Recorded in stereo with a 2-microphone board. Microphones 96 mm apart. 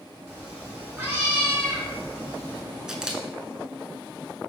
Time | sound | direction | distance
0.3 | a cat meowing | 25° right (ahead or behind) | 1.7 m
2.9 | a camera shutter | 5° right (ahead or behind) | 0.5 m